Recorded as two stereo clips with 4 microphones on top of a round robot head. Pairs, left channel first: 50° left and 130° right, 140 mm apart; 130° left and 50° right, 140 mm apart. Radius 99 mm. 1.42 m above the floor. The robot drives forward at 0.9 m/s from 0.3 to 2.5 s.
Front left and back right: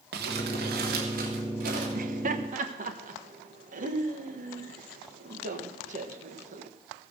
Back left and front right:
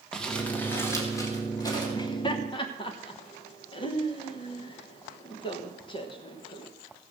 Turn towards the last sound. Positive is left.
turn(degrees=-170)